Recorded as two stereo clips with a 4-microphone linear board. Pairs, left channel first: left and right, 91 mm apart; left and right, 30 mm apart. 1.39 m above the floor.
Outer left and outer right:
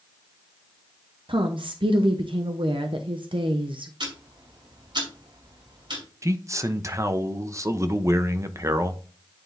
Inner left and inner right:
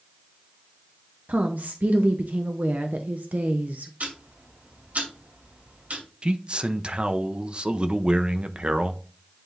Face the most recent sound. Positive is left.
turn(degrees=-35)  # may be behind; listen again after turning